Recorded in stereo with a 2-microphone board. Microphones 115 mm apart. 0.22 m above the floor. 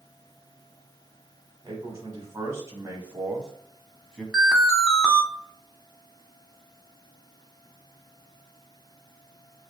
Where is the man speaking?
40° right (ahead or behind), 1.2 m; by 4.2 s 10° left (ahead or behind), 1.3 m.